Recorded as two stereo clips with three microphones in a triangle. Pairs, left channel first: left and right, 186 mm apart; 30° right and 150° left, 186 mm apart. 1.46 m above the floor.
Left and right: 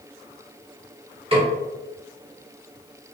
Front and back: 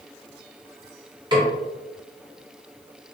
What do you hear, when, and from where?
1.3 s a snare drum: 145° right, 1.7 m